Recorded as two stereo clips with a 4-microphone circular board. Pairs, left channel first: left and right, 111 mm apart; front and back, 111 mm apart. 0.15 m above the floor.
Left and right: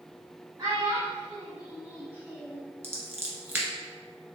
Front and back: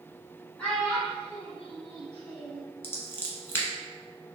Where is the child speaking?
70° right, 1.1 m; by 2.6 s 175° right, 1.8 m.